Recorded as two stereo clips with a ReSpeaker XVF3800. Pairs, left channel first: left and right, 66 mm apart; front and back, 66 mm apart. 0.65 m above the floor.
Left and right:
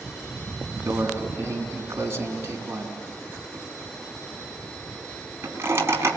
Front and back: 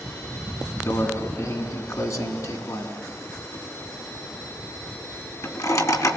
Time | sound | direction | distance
0.9 | a microwave | 35° right | 4 m